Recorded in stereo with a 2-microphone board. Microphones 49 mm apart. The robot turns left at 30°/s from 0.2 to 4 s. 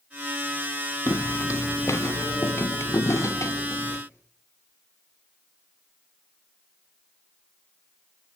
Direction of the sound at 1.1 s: 65° left (ahead or behind).